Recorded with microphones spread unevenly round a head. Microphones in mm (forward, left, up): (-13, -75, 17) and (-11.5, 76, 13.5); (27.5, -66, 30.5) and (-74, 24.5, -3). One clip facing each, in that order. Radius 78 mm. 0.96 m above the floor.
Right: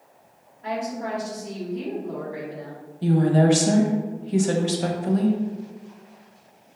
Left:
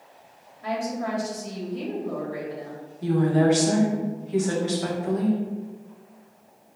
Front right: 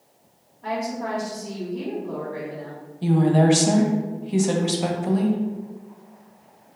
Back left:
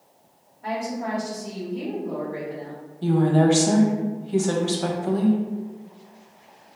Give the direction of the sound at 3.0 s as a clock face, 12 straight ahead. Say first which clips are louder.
Right 2 dB, even; 4 o'clock.